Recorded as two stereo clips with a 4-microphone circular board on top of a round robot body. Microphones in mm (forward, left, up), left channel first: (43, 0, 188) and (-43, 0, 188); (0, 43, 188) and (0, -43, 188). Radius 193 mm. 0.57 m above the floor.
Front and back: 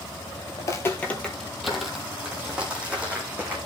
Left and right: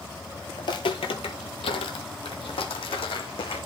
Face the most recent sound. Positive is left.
turn(degrees=110)